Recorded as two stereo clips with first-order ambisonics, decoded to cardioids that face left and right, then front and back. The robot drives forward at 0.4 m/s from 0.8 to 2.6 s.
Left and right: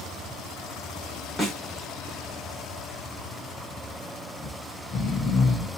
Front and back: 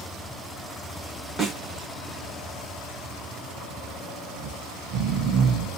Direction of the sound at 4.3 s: 150° left.